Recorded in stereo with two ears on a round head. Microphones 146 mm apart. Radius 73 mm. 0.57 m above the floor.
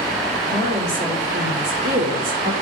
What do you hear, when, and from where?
0.5 s a woman speaking: 50° right (ahead or behind), 1.9 m; by 2.5 s 55° right (ahead or behind), 1.0 m